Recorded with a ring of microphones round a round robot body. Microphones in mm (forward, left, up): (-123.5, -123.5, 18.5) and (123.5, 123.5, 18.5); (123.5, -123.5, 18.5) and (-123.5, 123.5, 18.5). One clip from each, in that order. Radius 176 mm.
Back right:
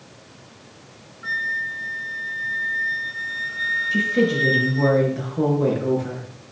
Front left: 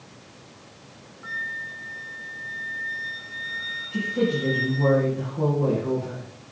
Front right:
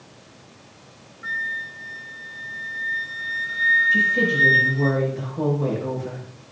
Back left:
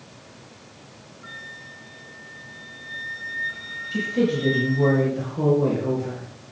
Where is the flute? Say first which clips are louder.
Back right 6 dB, front right 12 dB; 70° right, 1.6 m.